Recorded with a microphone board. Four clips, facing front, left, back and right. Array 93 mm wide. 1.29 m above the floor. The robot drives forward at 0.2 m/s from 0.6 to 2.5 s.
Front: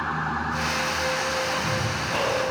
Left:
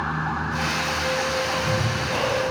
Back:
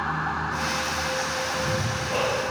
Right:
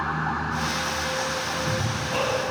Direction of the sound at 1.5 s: Straight behind.